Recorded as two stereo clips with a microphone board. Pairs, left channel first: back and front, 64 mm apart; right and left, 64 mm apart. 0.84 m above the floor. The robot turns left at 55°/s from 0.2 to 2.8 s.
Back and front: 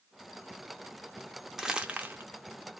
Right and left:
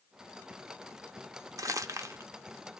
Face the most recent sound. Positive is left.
turn(degrees=15)